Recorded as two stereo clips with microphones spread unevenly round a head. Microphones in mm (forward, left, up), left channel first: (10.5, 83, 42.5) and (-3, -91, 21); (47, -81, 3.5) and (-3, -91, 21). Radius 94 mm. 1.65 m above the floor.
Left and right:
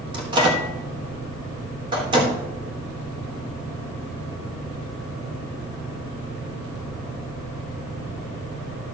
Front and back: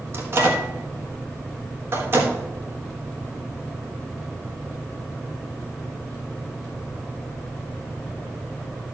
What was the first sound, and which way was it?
A microwave, 160° right.